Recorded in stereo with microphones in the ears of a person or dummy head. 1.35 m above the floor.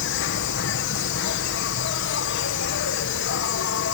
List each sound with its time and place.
0.0 s an insect: 65° left (ahead or behind)